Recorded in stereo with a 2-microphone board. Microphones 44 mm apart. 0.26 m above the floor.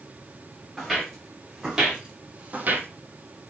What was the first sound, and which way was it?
Footsteps, 5° right (ahead or behind).